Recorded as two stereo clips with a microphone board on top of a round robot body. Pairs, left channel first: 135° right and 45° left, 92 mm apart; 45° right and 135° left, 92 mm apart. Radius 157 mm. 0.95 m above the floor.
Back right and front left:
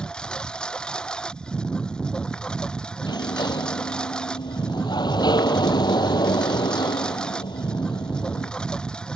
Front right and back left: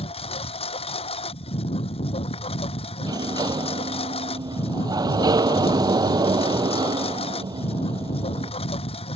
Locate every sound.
0.0 s a lawn mower: 55° right
3.0 s a sliding door: straight behind